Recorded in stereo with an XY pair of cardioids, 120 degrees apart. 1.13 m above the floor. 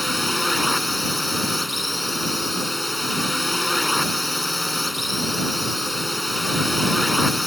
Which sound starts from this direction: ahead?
A drone, at 0.0 s.